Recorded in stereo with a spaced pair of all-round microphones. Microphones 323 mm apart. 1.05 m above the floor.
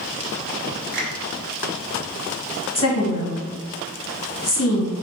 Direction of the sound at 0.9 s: 40° right (ahead or behind).